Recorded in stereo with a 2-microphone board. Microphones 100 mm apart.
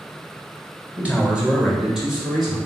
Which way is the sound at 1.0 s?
10° right (ahead or behind).